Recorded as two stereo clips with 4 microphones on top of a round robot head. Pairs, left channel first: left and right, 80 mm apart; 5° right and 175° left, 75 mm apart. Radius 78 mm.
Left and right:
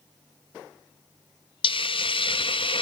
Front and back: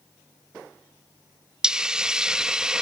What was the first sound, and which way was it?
A hiss, 95° left.